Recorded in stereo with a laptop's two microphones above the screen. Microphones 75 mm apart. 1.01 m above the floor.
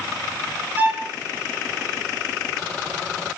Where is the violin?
25° right (ahead or behind), 7 m.